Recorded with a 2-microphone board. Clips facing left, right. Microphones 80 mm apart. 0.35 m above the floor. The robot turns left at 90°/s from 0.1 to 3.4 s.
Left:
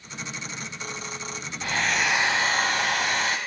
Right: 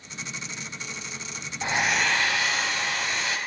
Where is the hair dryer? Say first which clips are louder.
Right 1 dB; 150° right, 0.7 m; by 3.4 s 55° left, 0.7 m.